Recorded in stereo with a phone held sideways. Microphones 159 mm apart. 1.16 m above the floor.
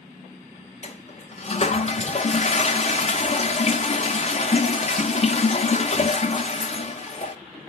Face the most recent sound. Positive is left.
turn(degrees=45)  # may be behind; listen again after turning